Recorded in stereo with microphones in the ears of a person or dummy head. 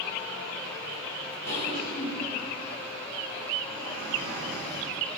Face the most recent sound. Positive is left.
turn(degrees=90)